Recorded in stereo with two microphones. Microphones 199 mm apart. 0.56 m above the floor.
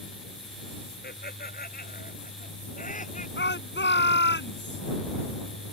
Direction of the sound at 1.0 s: 55° left (ahead or behind).